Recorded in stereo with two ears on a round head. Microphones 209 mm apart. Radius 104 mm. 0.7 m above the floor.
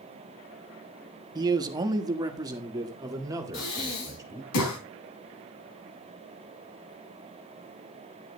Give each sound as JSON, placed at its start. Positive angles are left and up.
{"t": 1.4, "sound": "a man speaking", "side_deg": -15, "distance_m": 1.0}
{"t": 3.5, "sound": "breathing", "side_deg": 80, "distance_m": 3.5}